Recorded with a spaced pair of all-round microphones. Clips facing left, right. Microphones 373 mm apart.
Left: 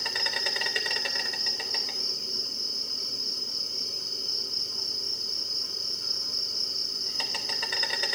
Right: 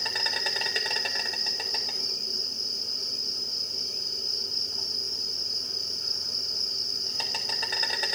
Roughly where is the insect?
Centre.